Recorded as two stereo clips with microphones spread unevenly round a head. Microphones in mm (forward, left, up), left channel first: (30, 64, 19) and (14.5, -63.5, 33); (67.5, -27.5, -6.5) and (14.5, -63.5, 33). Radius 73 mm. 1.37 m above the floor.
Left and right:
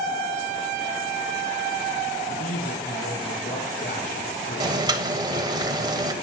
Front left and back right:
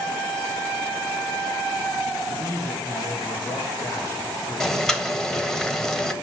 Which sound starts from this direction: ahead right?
Boiling, at 4.6 s.